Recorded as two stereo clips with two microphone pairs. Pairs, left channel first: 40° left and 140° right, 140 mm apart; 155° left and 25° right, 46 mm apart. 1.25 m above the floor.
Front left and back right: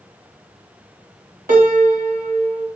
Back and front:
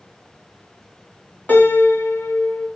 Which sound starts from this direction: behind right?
A piano, at 1.5 s.